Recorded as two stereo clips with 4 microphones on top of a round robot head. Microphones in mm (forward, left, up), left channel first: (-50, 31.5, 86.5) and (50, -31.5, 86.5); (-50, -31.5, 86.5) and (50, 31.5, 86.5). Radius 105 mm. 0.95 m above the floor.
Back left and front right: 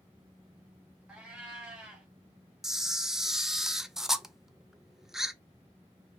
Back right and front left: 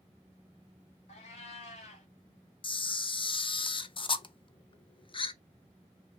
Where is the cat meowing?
115° right, 1.2 m.